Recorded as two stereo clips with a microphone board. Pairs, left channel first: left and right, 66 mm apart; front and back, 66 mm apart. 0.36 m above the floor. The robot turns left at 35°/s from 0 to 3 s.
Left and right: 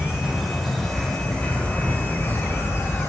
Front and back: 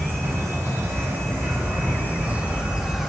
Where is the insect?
155° right, 2.5 m; by 3.1 s 100° left, 2.5 m.